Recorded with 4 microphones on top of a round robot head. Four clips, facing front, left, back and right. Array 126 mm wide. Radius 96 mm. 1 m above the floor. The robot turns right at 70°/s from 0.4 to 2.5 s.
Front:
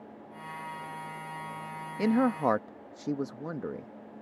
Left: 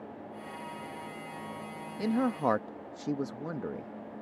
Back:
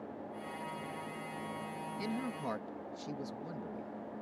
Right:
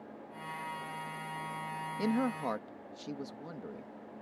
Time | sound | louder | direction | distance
2.0 | a man speaking | left 4 dB, front 15 dB | straight ahead | ?